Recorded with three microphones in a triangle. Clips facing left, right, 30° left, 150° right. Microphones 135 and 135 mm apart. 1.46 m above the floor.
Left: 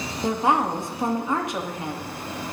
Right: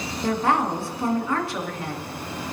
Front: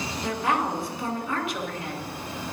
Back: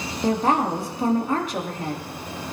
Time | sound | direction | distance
0.2 | a woman speaking | 160° left | 2.5 m